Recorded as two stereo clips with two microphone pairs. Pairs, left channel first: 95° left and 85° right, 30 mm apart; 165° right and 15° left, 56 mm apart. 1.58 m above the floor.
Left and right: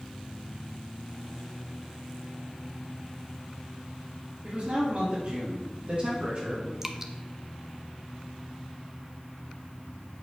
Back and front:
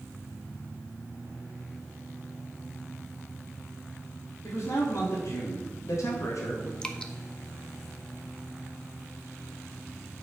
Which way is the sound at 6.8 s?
150° right.